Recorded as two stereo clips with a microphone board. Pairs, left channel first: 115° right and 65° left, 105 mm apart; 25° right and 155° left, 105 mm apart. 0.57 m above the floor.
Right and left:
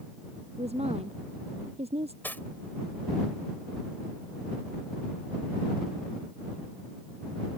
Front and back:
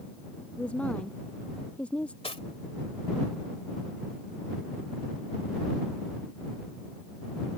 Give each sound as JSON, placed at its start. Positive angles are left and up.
{"t": 0.6, "sound": "a woman speaking", "azimuth_deg": 55}
{"t": 2.2, "sound": "cutlery clinking", "azimuth_deg": -40}